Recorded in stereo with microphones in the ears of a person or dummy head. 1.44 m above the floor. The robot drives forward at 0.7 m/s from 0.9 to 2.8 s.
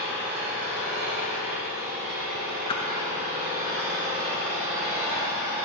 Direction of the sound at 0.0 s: 60° right (ahead or behind).